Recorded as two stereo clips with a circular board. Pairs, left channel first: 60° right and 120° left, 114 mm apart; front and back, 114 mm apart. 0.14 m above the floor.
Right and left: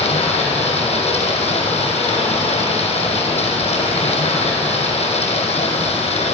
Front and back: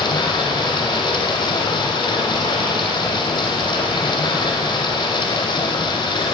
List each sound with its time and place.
0.0 s running water: 50° right, 2.5 m